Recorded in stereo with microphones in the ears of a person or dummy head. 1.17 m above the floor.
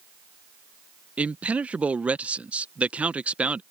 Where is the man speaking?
10° right (ahead or behind).